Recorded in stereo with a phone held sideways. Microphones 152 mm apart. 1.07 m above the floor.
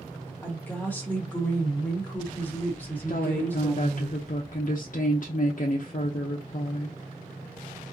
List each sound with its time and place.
0.4 s a woman speaking: 10° left (ahead or behind), 1.2 m
3.1 s a woman speaking: 60° left (ahead or behind), 0.6 m